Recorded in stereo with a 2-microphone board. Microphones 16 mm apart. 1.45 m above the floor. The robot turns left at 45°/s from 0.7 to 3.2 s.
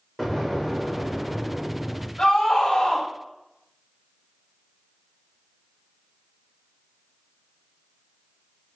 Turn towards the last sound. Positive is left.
turn(degrees=75)